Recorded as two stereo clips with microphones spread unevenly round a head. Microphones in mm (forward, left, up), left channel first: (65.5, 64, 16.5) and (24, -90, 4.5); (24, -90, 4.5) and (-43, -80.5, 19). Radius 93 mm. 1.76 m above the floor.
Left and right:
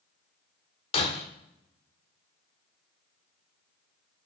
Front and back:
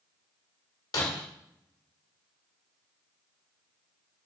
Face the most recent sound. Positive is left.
turn(degrees=40)